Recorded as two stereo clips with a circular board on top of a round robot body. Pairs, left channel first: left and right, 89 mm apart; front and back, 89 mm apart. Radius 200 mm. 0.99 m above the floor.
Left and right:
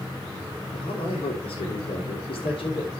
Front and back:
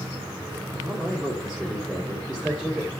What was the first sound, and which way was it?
A man speaking, 80° left.